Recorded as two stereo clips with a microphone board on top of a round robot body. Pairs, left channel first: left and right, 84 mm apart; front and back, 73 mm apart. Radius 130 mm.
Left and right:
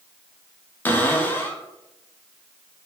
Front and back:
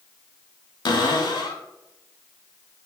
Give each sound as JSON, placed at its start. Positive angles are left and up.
{"t": 0.8, "sound": "a cupboard door", "azimuth_deg": 20, "distance_m": 0.6}